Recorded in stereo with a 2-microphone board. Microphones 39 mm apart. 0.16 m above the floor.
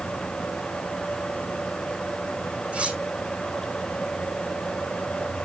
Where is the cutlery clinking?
30° right (ahead or behind), 4.5 m.